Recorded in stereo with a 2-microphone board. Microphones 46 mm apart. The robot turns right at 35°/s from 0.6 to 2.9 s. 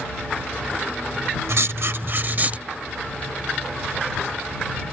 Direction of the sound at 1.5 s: 75° right.